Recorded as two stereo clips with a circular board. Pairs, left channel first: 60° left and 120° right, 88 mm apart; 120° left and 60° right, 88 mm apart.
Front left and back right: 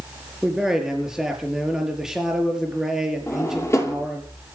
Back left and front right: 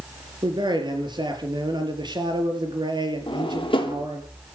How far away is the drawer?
About 3.5 m.